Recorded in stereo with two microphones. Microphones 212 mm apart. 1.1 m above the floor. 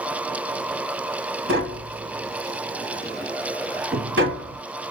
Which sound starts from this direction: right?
Tapping, at 1.5 s.